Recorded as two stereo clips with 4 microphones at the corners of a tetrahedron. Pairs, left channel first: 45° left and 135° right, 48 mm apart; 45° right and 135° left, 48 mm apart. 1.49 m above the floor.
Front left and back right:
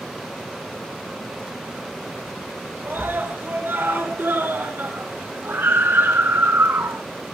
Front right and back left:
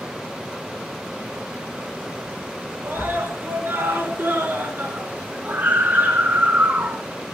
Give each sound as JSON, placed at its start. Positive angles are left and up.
{"t": 2.8, "sound": "a scream", "azimuth_deg": 180, "distance_m": 5.5}